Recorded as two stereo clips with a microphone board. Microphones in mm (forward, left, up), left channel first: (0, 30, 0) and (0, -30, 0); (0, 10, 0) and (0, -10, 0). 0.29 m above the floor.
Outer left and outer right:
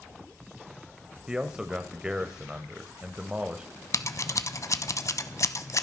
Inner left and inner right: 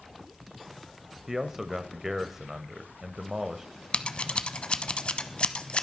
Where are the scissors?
60° left (ahead or behind), 0.8 m.